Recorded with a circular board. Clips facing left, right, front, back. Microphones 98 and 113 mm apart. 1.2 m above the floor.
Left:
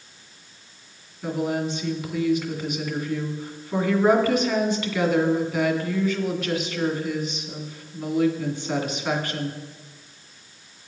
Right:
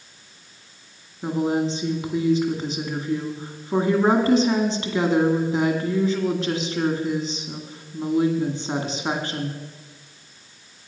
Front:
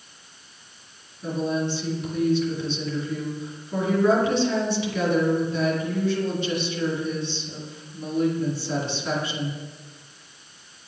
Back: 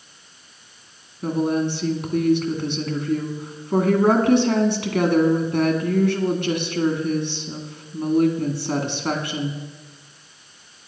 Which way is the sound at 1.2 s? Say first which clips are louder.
Right 3 dB, back 4 dB; 150° right.